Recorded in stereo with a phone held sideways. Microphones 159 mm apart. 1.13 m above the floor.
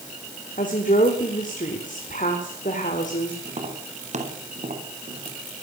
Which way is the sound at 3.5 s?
50° right (ahead or behind).